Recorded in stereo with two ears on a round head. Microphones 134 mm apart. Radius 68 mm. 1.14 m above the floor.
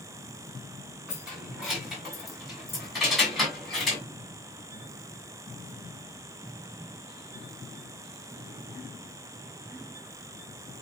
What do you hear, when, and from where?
1.1 s keys jangling: 5° right (ahead or behind), 8 m; by 4.0 s centre (ahead or behind), 6.5 m